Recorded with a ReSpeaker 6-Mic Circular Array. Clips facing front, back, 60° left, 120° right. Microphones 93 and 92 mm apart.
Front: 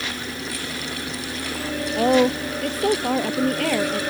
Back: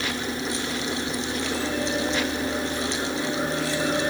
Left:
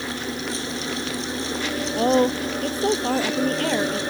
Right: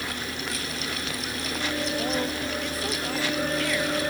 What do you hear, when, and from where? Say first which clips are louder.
2.0 s a woman speaking: front 8 dB, left 9 dB; 15° left